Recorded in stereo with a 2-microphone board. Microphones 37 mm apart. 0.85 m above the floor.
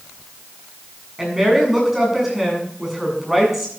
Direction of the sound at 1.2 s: 10° right (ahead or behind).